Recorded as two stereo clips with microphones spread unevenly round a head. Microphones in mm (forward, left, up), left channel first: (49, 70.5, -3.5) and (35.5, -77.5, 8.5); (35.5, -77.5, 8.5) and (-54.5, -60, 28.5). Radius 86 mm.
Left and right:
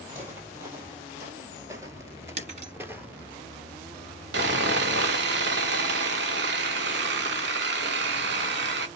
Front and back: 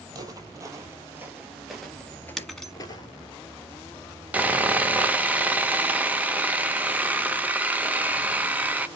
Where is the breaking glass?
105° right, 1.3 m.